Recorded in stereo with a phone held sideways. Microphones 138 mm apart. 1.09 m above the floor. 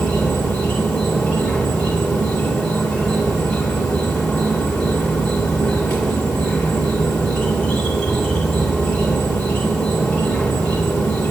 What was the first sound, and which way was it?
An insect, 5° left (ahead or behind).